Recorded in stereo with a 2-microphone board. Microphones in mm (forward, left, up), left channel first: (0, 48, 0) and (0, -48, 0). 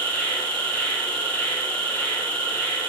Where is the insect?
15° left (ahead or behind), 0.9 m.